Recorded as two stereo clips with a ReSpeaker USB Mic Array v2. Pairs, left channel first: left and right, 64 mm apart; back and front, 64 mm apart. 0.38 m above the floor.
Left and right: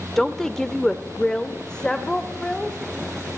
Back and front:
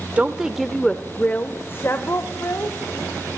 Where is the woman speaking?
10° left, 0.8 m; by 2.8 s 165° left, 1.5 m.